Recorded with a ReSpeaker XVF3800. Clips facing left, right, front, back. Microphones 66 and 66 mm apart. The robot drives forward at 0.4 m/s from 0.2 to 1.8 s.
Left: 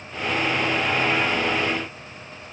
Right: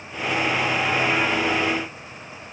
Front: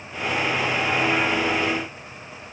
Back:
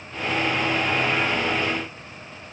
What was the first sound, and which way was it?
Only background noise.